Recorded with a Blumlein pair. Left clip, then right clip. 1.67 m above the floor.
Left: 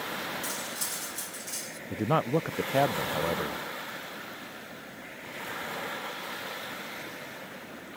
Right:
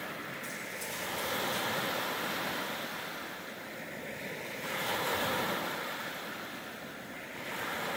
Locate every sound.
0.4 s cutlery clinking: 60° left
1.9 s a man speaking: 45° left